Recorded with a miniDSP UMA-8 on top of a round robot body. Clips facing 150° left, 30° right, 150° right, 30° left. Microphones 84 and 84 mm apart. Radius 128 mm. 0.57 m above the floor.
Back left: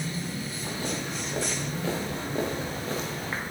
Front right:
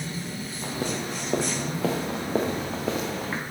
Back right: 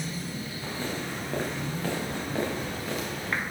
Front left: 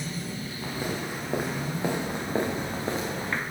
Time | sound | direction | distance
0.6 | footsteps | 50° right | 5.5 m